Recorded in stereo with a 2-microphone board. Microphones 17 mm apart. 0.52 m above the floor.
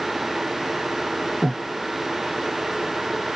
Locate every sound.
1.4 s breathing: 30° left (ahead or behind), 0.6 m